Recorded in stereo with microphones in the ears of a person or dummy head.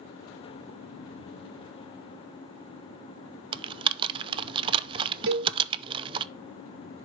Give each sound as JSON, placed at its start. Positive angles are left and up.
{"t": 3.5, "sound": "typing on a keyboard", "side_deg": -20, "distance_m": 0.5}
{"t": 5.3, "sound": "a cowbell", "side_deg": -60, "distance_m": 3.0}